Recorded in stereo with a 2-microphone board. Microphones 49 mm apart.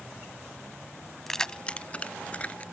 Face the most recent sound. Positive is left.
turn(degrees=30)  # may be behind; listen again after turning